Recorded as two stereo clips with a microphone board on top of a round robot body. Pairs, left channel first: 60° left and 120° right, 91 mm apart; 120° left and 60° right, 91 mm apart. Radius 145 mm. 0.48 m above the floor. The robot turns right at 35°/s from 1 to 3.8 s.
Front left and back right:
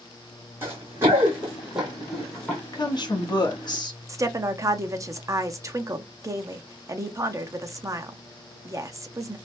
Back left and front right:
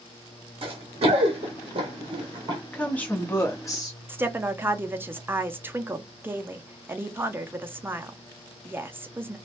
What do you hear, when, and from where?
0.6 s running footsteps: 50° right, 1.8 m; by 2.6 s 20° right, 0.9 m
2.7 s a woman speaking: 40° left, 1.0 m; by 4.0 s 80° left, 1.0 m
4.1 s a woman speaking: 110° right, 0.7 m